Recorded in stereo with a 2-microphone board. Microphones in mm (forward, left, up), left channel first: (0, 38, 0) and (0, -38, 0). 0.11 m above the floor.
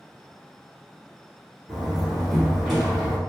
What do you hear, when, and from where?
1.7 s a door slam: centre (ahead or behind), 1.1 m